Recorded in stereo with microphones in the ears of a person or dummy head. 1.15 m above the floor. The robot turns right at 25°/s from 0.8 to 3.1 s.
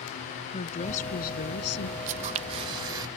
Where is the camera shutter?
45° right (ahead or behind); by 3.1 s 25° right (ahead or behind).